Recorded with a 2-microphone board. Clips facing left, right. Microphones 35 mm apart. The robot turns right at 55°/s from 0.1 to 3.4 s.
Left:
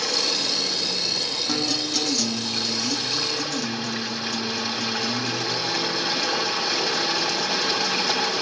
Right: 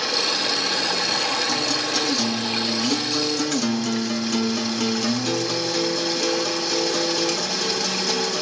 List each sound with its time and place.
0.0 s running water: 160° right, 4.5 m; by 8.4 s 20° left, 4.5 m
1.5 s a guitar: 160° left, 2.5 m; by 8.4 s 95° right, 2.5 m